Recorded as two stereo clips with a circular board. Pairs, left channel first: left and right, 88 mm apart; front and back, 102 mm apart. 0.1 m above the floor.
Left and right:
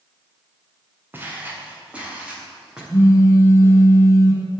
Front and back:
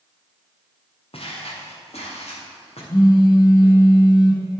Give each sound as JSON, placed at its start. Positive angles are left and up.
{"t": 1.1, "sound": "footsteps", "azimuth_deg": -20, "distance_m": 3.0}
{"t": 2.9, "sound": "a phone buzzing", "azimuth_deg": 35, "distance_m": 2.5}